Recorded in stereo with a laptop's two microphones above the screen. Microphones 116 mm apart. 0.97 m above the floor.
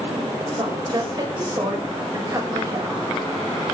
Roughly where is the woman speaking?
Right.